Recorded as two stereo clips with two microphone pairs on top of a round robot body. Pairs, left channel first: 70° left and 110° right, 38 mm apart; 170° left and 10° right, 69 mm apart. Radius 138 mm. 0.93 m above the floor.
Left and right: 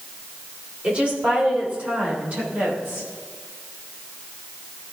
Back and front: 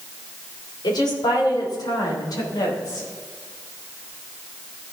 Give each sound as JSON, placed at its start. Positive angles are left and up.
{"t": 0.8, "sound": "a woman speaking", "azimuth_deg": -170, "distance_m": 3.0}